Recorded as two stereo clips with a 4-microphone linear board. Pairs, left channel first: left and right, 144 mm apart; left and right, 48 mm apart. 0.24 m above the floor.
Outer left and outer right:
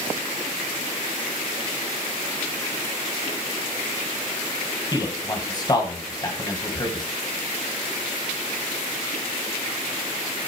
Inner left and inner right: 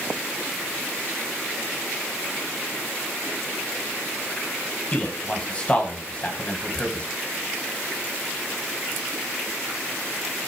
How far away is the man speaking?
About 1.9 m.